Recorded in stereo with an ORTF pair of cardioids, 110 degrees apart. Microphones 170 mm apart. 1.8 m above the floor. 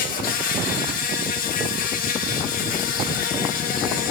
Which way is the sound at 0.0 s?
60° left.